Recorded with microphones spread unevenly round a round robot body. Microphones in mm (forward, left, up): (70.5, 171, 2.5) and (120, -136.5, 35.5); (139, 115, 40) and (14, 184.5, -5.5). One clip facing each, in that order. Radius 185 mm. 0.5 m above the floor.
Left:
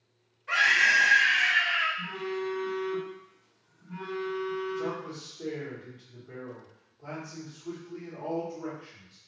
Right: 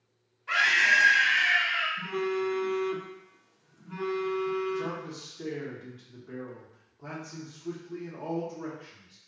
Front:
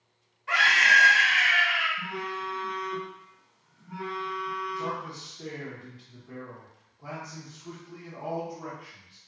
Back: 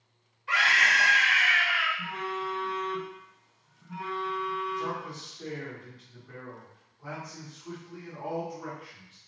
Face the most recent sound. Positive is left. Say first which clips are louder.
# left 1 dB, even
turn(degrees=-110)